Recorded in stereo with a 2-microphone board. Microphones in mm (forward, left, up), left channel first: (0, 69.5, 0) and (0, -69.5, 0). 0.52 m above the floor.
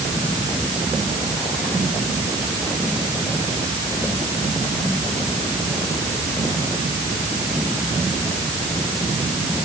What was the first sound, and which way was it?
Only background noise.